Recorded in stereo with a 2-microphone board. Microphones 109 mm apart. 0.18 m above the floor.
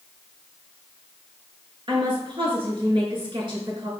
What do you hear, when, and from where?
1.9 s a woman speaking: 50° right (ahead or behind), 3 m